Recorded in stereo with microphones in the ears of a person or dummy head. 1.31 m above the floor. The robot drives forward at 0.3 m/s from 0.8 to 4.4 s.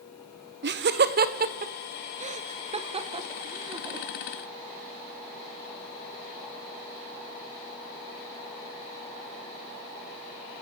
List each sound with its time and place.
0.6 s laughter: 45° right (ahead or behind), 0.9 m; by 4.1 s 25° right (ahead or behind), 1.5 m